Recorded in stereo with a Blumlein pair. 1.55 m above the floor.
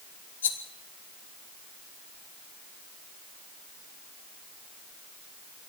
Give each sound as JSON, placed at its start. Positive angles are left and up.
{"t": 0.4, "sound": "a rattle", "azimuth_deg": 65, "distance_m": 2.5}